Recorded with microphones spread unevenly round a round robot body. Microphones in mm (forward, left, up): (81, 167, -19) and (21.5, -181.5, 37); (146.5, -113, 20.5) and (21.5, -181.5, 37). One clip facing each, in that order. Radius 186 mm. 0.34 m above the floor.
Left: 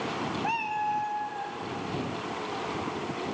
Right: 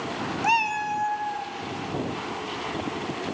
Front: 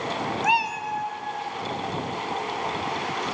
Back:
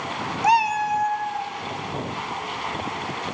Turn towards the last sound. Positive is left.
turn(degrees=-160)